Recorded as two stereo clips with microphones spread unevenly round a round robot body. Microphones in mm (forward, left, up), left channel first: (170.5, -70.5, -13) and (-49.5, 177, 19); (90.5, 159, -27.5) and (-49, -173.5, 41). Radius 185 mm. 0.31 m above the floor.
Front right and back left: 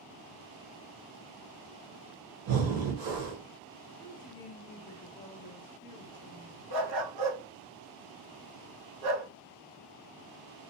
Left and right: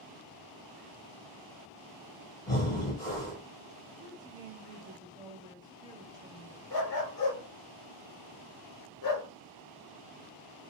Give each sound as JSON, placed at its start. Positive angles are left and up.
{"t": 2.5, "sound": "breathing", "azimuth_deg": 120, "distance_m": 0.9}
{"t": 4.0, "sound": "a woman speaking", "azimuth_deg": -20, "distance_m": 1.0}
{"t": 6.7, "sound": "a dog barking", "azimuth_deg": 105, "distance_m": 1.5}